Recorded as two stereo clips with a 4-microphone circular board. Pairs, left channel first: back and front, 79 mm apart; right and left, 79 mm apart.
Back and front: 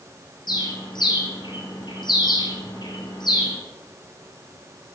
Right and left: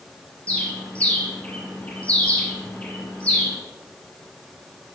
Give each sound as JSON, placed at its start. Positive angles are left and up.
{"t": 0.5, "sound": "a bird", "azimuth_deg": -165, "distance_m": 2.5}